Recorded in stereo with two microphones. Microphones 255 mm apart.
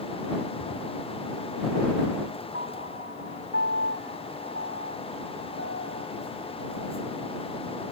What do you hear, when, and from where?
0.6 s a drawer: 30° left (ahead or behind)
2.5 s a piano: 55° left (ahead or behind)